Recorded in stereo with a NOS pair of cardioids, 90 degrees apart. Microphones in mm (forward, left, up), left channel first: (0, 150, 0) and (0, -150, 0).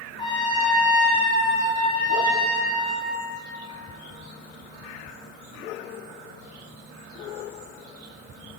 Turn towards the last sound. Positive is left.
turn(degrees=15)